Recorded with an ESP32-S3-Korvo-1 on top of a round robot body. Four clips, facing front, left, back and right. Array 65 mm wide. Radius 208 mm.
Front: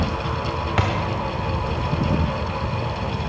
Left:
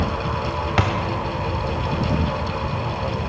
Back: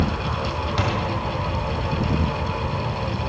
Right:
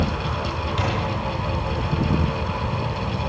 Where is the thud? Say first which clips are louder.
Left 5 dB, front 2 dB; 65° left, 1.0 m.